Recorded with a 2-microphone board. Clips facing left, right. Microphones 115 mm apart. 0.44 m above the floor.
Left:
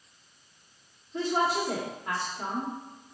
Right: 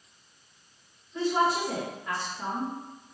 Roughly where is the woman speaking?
Left.